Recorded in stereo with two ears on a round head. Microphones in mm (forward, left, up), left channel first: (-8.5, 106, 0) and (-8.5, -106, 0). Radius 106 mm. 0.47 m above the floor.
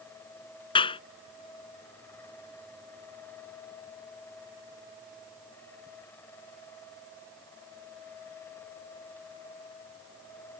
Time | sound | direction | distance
0.8 | a clap | 25° left (ahead or behind) | ?